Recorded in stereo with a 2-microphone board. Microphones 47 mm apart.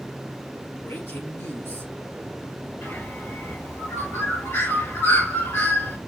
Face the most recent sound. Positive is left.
turn(degrees=65)  # may be behind; listen again after turning